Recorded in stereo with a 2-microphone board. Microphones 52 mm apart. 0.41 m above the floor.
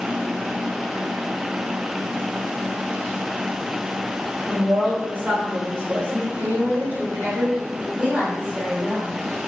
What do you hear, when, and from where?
4.5 s a woman speaking: 25° right (ahead or behind), 1.3 m; by 6.3 s 40° right (ahead or behind), 1.4 m
6.4 s a woman speaking: 35° right (ahead or behind), 1.5 m
8.0 s a woman speaking: 25° right (ahead or behind), 1.9 m